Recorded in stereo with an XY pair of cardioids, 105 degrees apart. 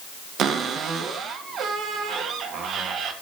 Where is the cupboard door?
65° right, 2 m.